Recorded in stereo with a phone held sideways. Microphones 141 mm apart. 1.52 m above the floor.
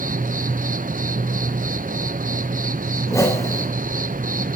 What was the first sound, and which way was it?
An insect, 75° right (ahead or behind).